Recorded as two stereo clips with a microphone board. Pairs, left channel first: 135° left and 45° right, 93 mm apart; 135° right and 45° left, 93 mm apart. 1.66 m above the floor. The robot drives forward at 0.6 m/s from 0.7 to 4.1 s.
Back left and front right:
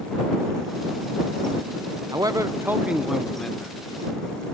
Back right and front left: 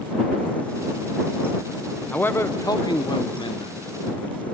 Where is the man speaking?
65° right, 0.7 m; by 4.0 s 155° right, 1.1 m.